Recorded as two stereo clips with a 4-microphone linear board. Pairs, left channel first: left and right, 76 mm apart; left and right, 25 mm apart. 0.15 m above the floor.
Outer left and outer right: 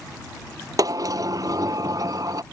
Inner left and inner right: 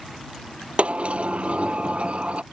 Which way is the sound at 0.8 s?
55° right (ahead or behind).